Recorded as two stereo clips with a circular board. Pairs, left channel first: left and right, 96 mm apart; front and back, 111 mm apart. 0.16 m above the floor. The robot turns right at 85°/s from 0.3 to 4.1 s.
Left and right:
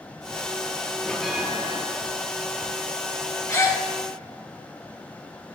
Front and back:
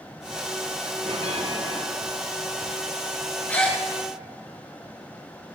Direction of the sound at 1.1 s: 165° left.